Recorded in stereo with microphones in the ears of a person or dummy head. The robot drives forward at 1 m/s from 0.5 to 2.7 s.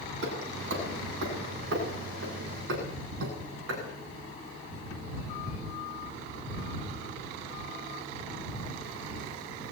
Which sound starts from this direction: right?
Hammering, at 0.2 s.